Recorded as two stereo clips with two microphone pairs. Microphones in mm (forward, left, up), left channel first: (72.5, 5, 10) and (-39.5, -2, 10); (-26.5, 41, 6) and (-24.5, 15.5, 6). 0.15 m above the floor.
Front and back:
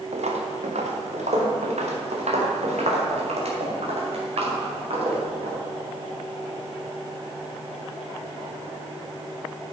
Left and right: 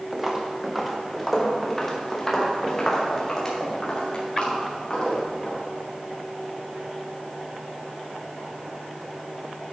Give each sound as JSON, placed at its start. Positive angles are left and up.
{"t": 0.1, "sound": "footsteps", "azimuth_deg": -160, "distance_m": 2.5}